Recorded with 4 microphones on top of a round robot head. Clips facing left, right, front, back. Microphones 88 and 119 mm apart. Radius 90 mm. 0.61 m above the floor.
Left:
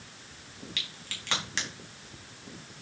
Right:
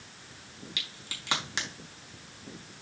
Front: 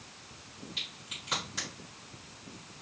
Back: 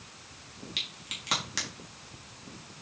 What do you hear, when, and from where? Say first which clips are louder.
0.8 s a crack: left 1 dB, back 2 dB; 165° right, 4 m